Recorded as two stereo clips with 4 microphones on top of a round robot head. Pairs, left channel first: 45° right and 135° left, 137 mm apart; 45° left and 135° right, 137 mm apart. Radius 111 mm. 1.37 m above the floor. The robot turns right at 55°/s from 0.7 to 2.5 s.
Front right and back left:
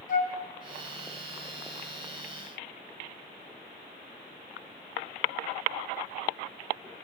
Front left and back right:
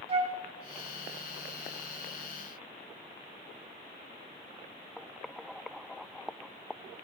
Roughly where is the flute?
Right.